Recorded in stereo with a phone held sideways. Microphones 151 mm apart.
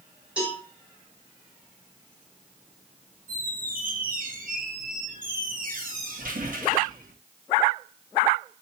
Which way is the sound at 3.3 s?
65° right (ahead or behind).